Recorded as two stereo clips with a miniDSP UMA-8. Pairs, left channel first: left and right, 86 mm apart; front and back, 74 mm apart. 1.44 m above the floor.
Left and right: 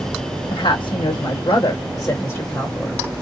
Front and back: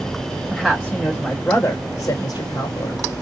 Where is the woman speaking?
95° left, 1.0 m; by 3.0 s straight ahead, 1.0 m.